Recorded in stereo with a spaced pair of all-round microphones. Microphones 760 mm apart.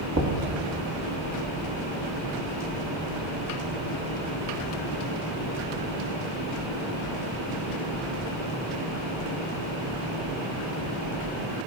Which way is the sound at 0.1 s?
20° right (ahead or behind).